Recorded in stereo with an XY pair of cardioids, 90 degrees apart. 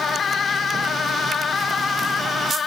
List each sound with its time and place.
Only background noise.